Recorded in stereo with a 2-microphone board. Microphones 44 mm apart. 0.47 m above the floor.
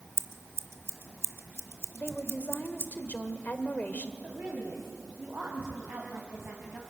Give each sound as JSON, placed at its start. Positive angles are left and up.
{"t": 0.2, "sound": "scissors", "side_deg": -75, "distance_m": 0.9}
{"t": 1.9, "sound": "a woman speaking", "side_deg": 40, "distance_m": 1.5}
{"t": 4.2, "sound": "a woman speaking", "side_deg": -50, "distance_m": 3.5}